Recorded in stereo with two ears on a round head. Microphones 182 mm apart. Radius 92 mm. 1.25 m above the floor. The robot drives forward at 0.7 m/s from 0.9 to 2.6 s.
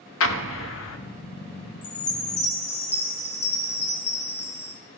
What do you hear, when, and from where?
0.2 s an explosion: 65° left (ahead or behind), 0.8 m; by 1.0 s 70° left (ahead or behind), 0.8 m
1.8 s a chime: 45° left (ahead or behind), 1.2 m; by 4.7 s 30° left (ahead or behind), 1.6 m